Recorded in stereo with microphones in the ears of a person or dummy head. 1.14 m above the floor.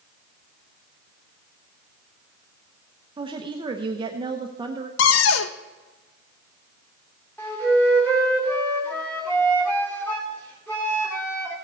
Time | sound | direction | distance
3.2 | a woman speaking | 30° right (ahead or behind) | 0.8 m
5.0 | a cupboard door | 80° left | 0.8 m
7.4 | a flute | 5° left (ahead or behind) | 2.5 m